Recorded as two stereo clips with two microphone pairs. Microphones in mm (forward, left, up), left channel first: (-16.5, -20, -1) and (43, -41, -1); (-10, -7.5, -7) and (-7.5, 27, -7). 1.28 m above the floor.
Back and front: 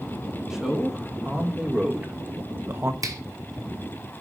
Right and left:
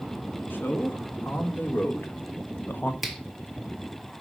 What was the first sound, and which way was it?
A man speaking, 100° right.